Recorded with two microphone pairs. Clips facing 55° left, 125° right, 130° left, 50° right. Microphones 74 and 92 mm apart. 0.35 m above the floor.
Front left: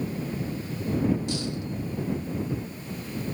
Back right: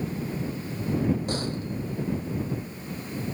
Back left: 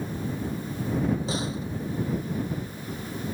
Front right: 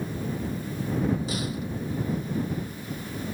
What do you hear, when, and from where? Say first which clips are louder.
1.3 s a door slam: back right 1 dB, back left 1 dB; 170° right